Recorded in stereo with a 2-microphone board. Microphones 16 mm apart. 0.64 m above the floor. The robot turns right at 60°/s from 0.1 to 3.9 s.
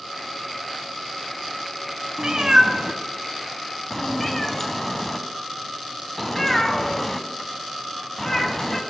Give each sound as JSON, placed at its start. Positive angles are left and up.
{"t": 2.2, "sound": "a cat meowing", "side_deg": -45, "distance_m": 0.6}